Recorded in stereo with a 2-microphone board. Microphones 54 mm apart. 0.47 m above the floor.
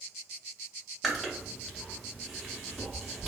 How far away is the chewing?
About 0.6 m.